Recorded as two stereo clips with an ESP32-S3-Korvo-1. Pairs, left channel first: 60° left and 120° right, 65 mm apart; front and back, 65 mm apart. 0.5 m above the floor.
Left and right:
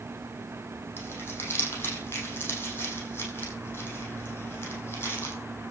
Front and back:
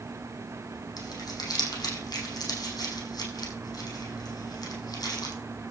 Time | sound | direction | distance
1.0 | crumpling | 10° left | 6 m